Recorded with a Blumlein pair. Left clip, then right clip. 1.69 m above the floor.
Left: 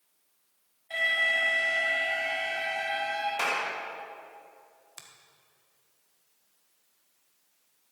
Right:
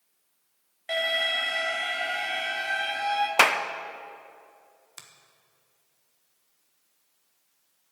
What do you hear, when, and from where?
0.9 s an alarm: 45° right, 3 m
3.4 s a clap: 55° right, 0.8 m
5.0 s a finger snap: 5° right, 1.3 m